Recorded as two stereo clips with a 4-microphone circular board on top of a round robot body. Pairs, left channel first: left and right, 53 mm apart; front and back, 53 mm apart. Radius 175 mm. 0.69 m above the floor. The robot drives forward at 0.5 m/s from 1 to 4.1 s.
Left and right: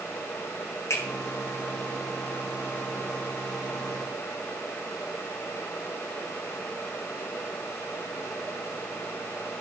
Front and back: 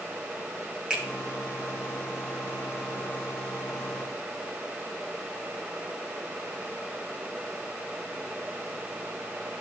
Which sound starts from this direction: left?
A finger snap, at 0.9 s.